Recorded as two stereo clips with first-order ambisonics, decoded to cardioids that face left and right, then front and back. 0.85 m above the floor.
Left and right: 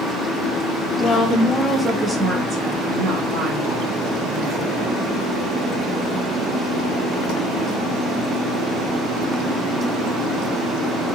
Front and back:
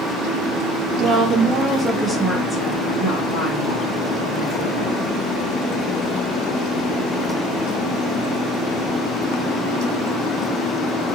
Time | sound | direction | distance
1.0 | a woman speaking | 140° left | 0.9 m